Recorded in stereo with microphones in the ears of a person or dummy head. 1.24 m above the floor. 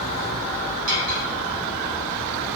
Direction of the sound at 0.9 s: 80° right.